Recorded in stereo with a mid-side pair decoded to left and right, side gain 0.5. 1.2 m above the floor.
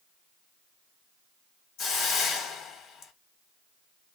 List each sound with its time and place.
1.8 s a hiss: 60° left, 1.0 m